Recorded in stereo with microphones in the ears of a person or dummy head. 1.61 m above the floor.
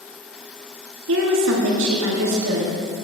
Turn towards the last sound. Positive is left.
turn(degrees=-75)  # may be behind; listen again after turning